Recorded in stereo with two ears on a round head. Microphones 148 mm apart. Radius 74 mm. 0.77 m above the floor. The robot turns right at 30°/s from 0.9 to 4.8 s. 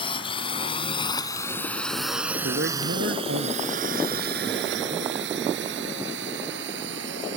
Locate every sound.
0.0 s a drone: 30° left (ahead or behind); by 7.4 s 80° right
2.4 s a man speaking: 115° right; by 5.2 s 45° right